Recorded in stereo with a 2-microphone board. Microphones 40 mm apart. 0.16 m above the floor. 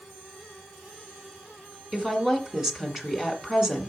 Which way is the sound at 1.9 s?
15° right (ahead or behind).